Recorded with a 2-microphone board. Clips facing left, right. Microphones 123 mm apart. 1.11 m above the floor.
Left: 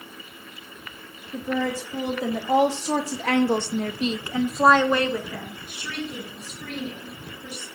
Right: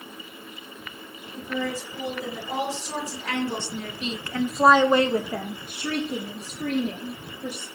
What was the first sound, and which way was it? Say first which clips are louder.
A woman speaking: left 4 dB; 80° left.